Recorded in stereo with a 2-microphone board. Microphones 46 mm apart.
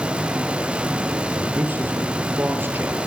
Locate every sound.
1.4 s a man speaking: 45° right (ahead or behind), 4.5 m; by 3.0 s 50° right (ahead or behind), 4 m